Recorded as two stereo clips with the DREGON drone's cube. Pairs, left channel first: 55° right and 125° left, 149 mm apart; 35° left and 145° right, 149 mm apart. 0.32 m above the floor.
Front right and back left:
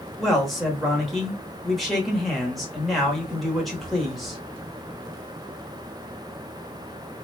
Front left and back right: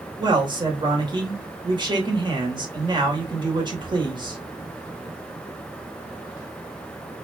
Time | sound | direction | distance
0.2 | a man speaking | 145° right | 1.0 m